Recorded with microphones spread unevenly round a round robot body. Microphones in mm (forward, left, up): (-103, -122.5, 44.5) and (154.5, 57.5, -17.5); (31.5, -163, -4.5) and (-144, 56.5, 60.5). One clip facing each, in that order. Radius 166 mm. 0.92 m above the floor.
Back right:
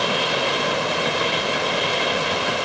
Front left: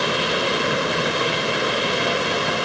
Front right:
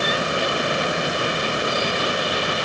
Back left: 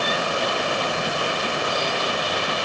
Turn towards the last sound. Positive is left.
No sound to turn to.